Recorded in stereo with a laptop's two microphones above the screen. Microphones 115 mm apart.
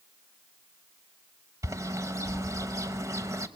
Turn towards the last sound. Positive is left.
turn(degrees=-25)  # may be behind; listen again after turning